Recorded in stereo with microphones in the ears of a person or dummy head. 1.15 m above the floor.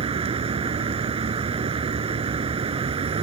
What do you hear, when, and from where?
0.0 s a vehicle: 30° right (ahead or behind)